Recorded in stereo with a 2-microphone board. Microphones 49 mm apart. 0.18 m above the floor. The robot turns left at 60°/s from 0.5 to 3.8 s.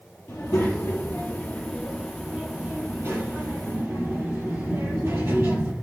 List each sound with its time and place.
0.3 s a child speaking: 90° left, 2.5 m; by 5.7 s 105° right, 2.5 m